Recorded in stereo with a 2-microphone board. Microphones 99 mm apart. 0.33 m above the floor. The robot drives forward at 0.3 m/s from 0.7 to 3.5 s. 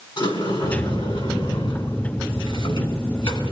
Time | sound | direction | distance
0.2 | a sliding door | 60° left (ahead or behind) | 4 m